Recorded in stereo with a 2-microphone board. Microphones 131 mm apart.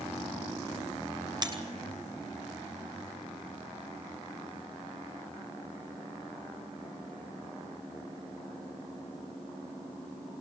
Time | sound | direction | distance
1.4 | breaking glass | 30° right (ahead or behind) | 5.5 m